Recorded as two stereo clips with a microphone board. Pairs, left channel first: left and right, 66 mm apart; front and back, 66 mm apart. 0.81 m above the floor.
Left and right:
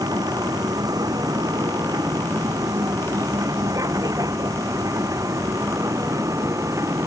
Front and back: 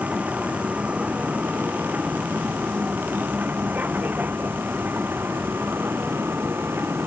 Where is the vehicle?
110° right; by 7.1 s 125° right.